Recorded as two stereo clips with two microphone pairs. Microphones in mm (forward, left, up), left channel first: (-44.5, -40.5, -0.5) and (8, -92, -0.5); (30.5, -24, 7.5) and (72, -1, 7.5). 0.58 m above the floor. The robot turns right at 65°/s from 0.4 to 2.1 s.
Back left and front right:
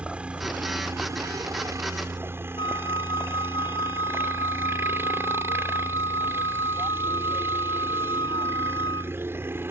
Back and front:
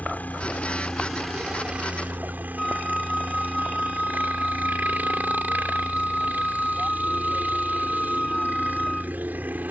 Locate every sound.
0.0 s a helicopter: 115° right; by 9.7 s straight ahead
2.6 s a flute: 130° left